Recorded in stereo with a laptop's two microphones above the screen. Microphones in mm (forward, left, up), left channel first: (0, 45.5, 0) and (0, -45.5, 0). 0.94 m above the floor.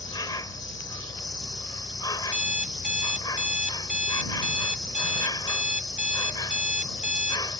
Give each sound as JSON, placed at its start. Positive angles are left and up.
{"t": 0.0, "sound": "an insect", "side_deg": 50}
{"t": 2.2, "sound": "an alarm clock", "side_deg": -15}